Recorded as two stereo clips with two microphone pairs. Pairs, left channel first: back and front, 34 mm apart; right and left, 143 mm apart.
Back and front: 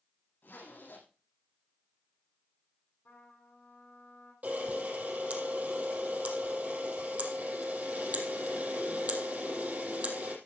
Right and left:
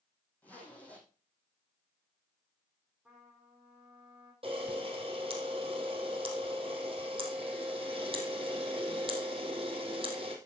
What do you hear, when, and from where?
0.4 s a zipper: 170° right, 5.5 m
3.0 s a trumpet: 175° left, 7.5 m
4.4 s a camera shutter: 40° left, 3.5 m